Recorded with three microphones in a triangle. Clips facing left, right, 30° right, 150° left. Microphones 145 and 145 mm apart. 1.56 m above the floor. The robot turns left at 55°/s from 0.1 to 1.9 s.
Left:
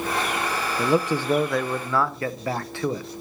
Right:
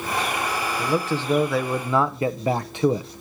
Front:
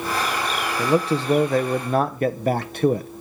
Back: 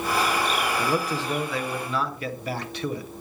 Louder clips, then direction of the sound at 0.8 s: Left 4 dB, front 5 dB; 35° left.